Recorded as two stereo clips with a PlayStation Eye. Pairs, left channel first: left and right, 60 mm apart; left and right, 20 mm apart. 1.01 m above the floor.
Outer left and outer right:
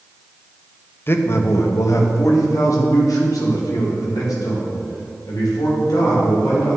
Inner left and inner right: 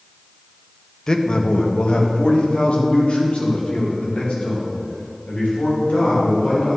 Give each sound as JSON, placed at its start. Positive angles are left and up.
{"t": 1.1, "sound": "a man speaking", "side_deg": 40, "distance_m": 0.7}